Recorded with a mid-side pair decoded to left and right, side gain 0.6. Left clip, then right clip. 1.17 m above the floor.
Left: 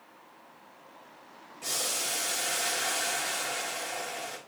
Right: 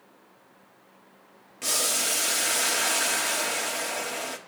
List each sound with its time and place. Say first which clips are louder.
1.6 s boiling: right 5 dB; 55° right, 1.4 m